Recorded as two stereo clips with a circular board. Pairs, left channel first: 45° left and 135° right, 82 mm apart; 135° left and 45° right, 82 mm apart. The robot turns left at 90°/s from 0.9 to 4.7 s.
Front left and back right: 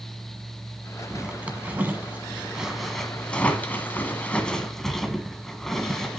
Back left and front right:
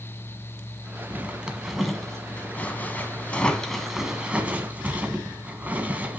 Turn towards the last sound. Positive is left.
turn(degrees=-30)